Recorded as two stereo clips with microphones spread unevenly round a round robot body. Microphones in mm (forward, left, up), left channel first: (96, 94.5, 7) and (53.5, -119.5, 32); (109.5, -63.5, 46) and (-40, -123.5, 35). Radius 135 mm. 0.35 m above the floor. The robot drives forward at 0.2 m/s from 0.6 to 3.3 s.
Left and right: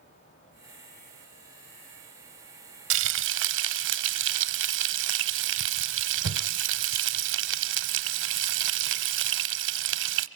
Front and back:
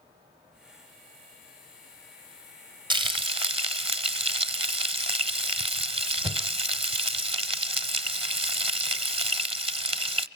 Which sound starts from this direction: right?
Frying, at 2.9 s.